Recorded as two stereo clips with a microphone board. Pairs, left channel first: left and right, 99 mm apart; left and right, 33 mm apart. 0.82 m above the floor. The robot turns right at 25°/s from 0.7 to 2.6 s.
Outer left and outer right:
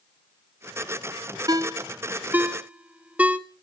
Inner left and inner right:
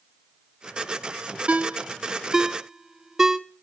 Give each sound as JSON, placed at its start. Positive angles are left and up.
{"t": 1.5, "sound": "a ringtone", "side_deg": -40, "distance_m": 0.8}